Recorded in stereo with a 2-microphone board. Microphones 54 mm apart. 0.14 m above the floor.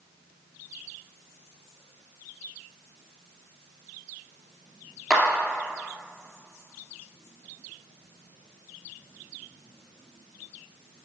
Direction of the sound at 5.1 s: Centre (ahead or behind).